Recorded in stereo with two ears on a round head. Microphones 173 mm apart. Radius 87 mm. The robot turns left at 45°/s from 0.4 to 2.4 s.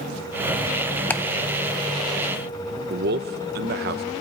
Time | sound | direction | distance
1.1 | ticking | 10° left (ahead or behind) | 0.6 m
2.9 | a man speaking | 55° right (ahead or behind) | 0.8 m